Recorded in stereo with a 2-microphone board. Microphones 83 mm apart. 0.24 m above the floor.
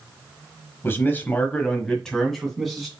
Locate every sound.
0.8 s a man speaking: 25° left (ahead or behind), 1.2 m; by 2.9 s centre (ahead or behind), 2 m